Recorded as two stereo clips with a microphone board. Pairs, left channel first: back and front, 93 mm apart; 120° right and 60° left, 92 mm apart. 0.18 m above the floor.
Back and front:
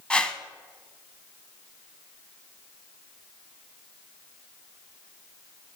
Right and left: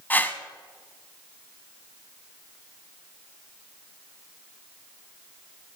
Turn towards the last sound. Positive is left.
turn(degrees=-120)